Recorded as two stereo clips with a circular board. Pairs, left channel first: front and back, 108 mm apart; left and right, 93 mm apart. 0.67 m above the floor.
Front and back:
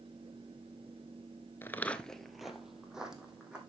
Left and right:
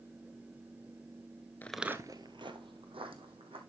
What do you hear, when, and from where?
1.6 s footsteps: 45° left, 0.6 m; by 3.6 s 95° right, 2.5 m